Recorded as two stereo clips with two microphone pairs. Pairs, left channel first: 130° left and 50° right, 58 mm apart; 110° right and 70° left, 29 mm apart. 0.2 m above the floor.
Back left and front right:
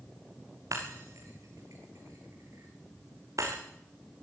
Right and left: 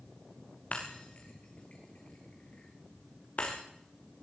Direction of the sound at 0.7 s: 70° right.